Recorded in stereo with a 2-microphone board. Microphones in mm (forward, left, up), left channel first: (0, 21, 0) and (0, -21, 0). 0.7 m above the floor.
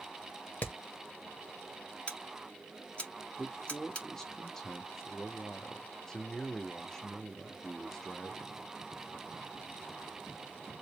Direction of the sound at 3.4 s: 10° left (ahead or behind).